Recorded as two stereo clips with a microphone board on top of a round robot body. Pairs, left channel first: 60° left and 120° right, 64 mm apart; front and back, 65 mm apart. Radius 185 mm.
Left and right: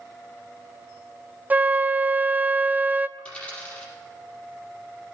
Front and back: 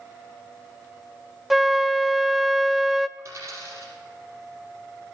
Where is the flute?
95° right, 0.7 m.